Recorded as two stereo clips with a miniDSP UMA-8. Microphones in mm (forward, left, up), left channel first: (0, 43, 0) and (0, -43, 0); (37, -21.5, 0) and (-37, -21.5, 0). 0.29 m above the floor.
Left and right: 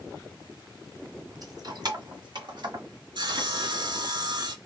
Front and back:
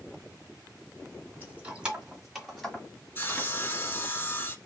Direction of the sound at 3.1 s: 60° right.